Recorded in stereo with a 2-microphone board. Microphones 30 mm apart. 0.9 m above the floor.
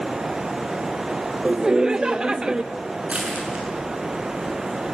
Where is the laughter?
25° right (ahead or behind), 0.5 m.